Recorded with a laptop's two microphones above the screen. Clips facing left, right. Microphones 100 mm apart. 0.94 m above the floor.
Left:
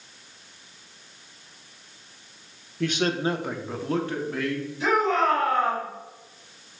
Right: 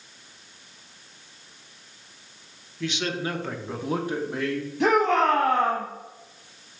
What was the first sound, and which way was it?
A man speaking, 50° left (ahead or behind).